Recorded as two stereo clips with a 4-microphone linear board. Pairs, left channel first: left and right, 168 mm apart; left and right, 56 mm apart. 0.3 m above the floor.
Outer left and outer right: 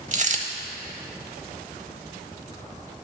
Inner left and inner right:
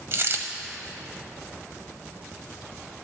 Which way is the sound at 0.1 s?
50° right (ahead or behind).